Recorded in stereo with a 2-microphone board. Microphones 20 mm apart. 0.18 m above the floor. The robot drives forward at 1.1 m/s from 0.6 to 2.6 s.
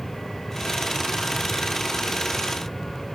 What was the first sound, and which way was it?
Only background noise.